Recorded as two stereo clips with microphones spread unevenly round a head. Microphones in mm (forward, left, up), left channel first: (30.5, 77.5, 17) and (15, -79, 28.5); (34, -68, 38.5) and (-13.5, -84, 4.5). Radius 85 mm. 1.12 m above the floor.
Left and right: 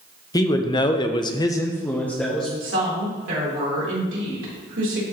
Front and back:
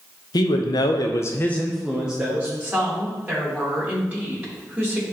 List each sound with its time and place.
0.3 s a man speaking: 25° left, 0.9 m; by 2.5 s 170° left, 1.1 m
2.6 s a woman speaking: 105° right, 3.5 m